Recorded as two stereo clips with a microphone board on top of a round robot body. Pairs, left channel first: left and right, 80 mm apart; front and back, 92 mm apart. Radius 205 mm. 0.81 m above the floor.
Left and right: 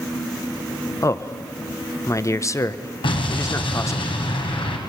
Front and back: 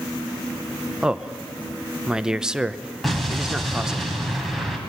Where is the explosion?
90° left, 3 m.